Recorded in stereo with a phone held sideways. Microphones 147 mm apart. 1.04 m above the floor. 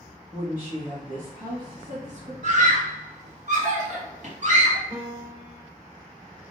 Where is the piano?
30° right (ahead or behind), 1.2 m.